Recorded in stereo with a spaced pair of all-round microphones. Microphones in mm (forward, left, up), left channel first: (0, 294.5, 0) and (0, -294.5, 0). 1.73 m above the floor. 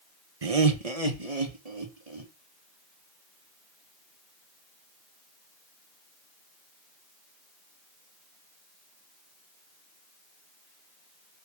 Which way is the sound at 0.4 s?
70° right (ahead or behind).